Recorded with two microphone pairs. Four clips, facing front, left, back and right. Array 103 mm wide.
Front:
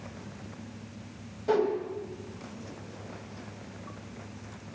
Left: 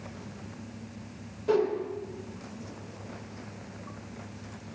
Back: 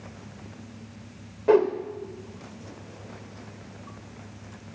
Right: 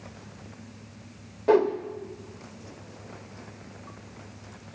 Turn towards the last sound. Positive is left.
turn(degrees=-140)